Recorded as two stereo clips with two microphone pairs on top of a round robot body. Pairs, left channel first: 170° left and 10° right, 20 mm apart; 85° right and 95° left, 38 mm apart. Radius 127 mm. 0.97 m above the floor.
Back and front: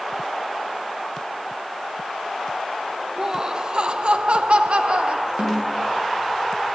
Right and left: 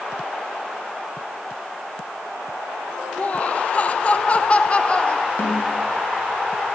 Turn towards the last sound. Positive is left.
turn(degrees=-50)